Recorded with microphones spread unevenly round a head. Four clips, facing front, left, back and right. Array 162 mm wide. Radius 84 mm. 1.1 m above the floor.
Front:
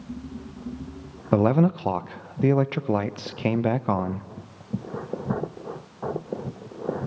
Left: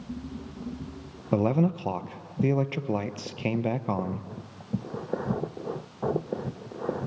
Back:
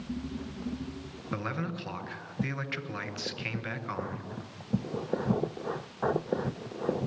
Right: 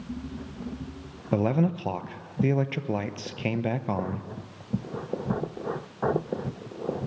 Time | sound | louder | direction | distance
1.3 | a man speaking | left 1 dB, front 15 dB | straight ahead | 0.9 m